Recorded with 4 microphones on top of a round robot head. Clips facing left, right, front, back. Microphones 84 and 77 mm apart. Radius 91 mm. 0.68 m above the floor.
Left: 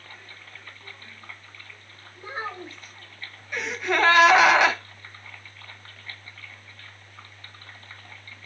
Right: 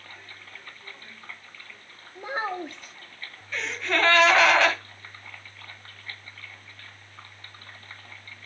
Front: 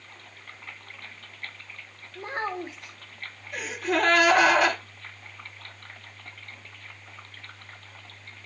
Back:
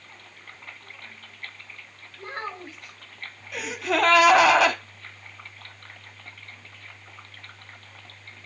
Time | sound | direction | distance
2.1 | a child speaking | 70° right | 1.3 m
3.5 | a gasp | 165° left | 1.6 m